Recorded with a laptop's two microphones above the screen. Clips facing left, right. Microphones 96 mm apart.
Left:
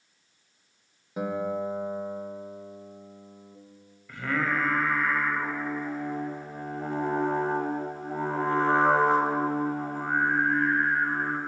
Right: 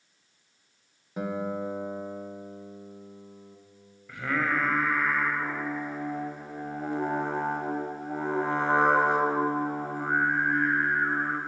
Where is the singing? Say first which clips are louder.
Even; 15° right (ahead or behind), 0.9 m.